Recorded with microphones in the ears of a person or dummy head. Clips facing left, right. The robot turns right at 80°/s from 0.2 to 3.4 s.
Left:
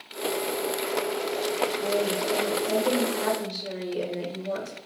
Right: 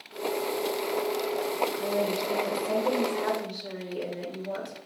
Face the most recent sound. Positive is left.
turn(degrees=60)